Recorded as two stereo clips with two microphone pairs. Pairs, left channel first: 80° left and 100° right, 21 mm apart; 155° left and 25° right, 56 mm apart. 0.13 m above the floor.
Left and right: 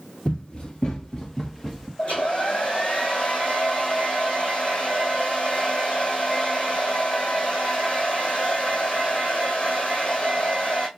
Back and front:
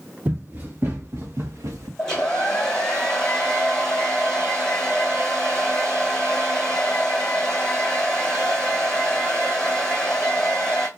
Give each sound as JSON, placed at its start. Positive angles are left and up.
{"t": 0.2, "sound": "running footsteps", "azimuth_deg": 40, "distance_m": 1.7}
{"t": 2.0, "sound": "a hair dryer", "azimuth_deg": 85, "distance_m": 1.6}